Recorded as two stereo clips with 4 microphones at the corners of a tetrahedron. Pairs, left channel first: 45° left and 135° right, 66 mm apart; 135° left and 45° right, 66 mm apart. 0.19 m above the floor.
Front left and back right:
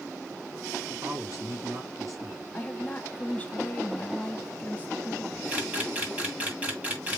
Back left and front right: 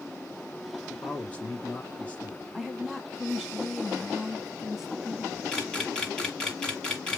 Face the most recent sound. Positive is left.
turn(degrees=-165)